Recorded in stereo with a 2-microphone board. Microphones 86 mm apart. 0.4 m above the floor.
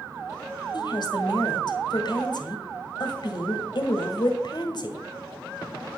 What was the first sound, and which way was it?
A woman speaking, 55° left (ahead or behind).